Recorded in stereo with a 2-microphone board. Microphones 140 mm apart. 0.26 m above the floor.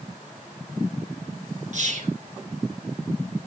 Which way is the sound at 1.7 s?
60° right (ahead or behind).